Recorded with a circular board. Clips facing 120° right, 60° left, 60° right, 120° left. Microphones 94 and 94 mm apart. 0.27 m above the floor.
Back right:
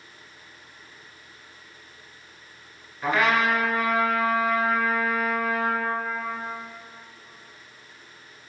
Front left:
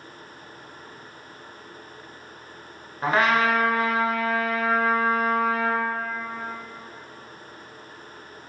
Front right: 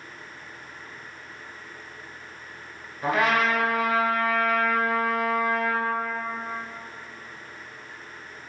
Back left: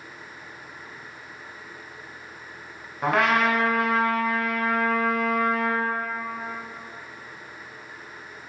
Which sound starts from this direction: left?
A trumpet, at 3.0 s.